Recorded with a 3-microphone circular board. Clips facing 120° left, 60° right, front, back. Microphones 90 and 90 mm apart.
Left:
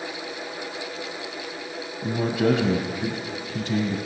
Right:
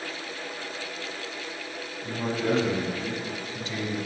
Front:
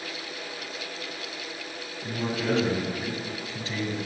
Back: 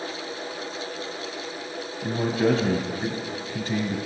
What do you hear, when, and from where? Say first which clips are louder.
2.0 s a man speaking: left 6 dB, back 6 dB; 145° left, 2.5 m